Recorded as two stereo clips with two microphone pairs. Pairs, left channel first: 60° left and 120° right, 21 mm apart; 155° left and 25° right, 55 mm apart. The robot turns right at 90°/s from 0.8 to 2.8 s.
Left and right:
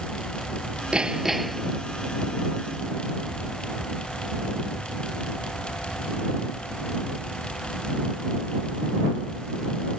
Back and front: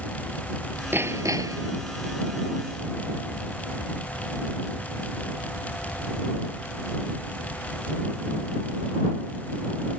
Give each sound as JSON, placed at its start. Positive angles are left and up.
{"t": 0.9, "sound": "hammering", "azimuth_deg": -75}